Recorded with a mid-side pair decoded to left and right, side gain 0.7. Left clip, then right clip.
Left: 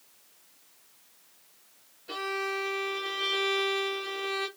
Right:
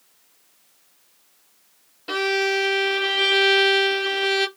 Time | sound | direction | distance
2.1 | a violin | 55° right | 0.7 m